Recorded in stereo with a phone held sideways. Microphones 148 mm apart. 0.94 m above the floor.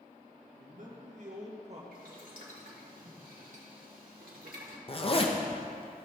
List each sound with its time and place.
0.6 s a man speaking: 60° right (ahead or behind), 1.7 m; by 1.8 s 50° right (ahead or behind), 1.6 m
1.9 s boiling: 75° right (ahead or behind), 1.7 m
4.9 s a zipper: 40° left (ahead or behind), 0.8 m